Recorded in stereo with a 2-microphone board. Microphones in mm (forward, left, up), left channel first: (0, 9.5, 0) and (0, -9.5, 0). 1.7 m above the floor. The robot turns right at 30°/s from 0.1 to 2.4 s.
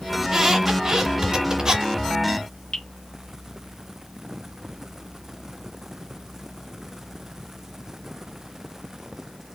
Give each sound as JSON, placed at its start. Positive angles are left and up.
{"t": 0.2, "sound": "a squeak", "side_deg": -15, "distance_m": 2.0}
{"t": 2.7, "sound": "dripping", "side_deg": 60, "distance_m": 1.2}